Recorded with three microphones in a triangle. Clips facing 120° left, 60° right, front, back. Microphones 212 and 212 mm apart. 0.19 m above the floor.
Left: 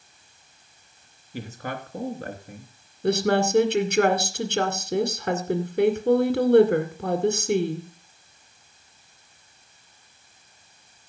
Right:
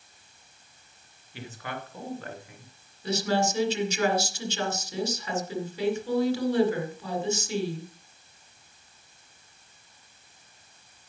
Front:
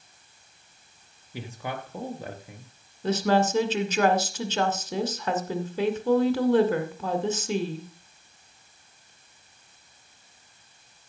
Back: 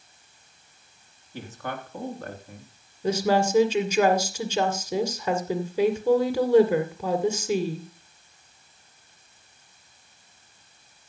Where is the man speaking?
75° left, 2.5 m.